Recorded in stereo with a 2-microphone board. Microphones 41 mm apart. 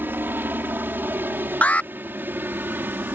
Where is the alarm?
40° left (ahead or behind).